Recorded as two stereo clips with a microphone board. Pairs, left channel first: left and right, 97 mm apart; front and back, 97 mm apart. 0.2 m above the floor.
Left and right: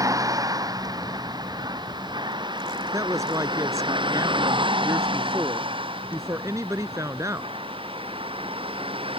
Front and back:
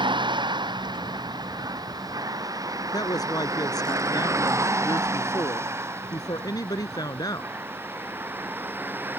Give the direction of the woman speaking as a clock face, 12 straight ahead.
1 o'clock.